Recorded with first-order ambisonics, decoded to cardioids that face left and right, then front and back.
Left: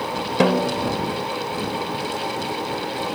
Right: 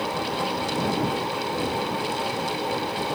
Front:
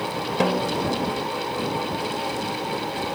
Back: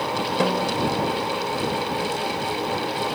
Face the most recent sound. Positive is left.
turn(degrees=85)